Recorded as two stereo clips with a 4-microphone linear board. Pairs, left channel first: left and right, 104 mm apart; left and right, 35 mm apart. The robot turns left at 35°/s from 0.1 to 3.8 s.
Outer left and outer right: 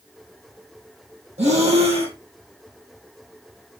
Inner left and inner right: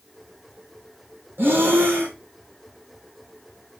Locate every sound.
1.4 s breathing: 85° right, 1.0 m; by 2.1 s 65° right (ahead or behind), 1.0 m